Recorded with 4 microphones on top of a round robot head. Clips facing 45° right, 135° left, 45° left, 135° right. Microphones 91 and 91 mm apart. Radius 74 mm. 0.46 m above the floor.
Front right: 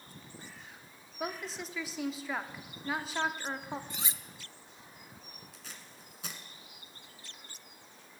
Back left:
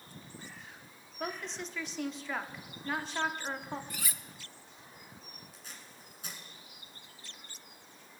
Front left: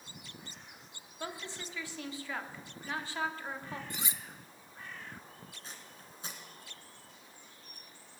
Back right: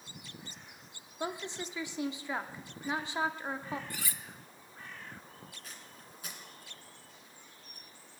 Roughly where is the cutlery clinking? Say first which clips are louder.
Even, even; ahead.